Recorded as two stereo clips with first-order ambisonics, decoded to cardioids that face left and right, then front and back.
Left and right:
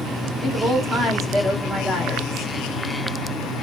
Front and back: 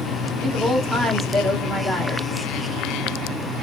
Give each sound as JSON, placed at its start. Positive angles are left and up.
{"t": 0.4, "sound": "a woman speaking", "azimuth_deg": -90, "distance_m": 0.7}